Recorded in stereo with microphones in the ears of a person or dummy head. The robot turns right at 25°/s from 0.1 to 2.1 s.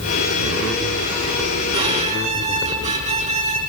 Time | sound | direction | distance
1.7 | a violin | 25° right (ahead or behind) | 6 m